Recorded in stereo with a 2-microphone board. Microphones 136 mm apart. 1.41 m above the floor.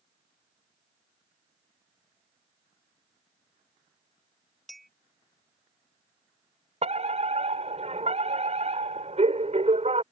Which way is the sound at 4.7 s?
Centre (ahead or behind).